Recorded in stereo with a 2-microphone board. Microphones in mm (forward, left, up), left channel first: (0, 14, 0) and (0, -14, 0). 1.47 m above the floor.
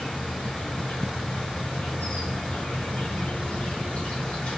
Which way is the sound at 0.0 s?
55° left (ahead or behind).